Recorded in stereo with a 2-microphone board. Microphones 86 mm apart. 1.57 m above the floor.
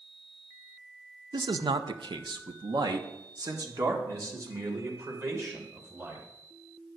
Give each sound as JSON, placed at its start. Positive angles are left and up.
{"t": 1.3, "sound": "a man speaking", "side_deg": -55, "distance_m": 0.7}